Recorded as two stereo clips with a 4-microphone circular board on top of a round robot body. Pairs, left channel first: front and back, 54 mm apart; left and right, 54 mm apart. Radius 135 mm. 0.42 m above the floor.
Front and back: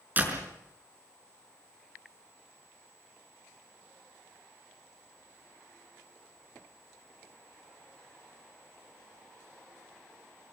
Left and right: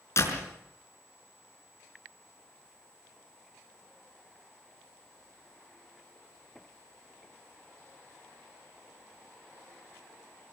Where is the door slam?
125° left, 5.5 m.